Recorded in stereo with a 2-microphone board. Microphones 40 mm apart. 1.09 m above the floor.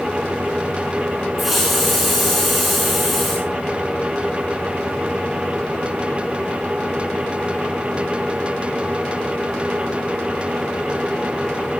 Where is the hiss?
Centre (ahead or behind), 8.5 m.